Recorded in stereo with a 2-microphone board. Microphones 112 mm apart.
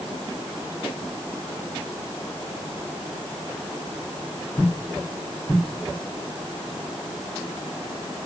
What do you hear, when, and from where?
Only background noise.